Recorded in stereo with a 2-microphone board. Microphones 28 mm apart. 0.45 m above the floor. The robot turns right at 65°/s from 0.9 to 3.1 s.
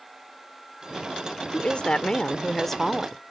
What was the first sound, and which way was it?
A woman speaking, 85° left.